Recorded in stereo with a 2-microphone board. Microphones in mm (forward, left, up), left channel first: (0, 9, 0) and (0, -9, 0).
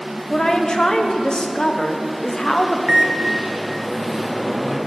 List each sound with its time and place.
0.3 s a woman speaking: 55° left (ahead or behind), 0.8 m
2.9 s a microwave: 30° right (ahead or behind), 1.0 m